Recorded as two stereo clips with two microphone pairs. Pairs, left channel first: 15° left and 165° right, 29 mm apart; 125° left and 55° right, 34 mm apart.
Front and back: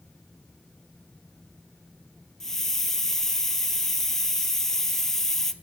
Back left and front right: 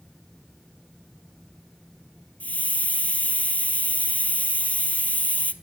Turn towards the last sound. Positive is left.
turn(degrees=95)